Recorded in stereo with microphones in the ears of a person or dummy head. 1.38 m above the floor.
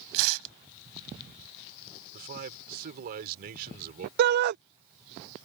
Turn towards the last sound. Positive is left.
turn(degrees=-55)  # may be behind; listen again after turning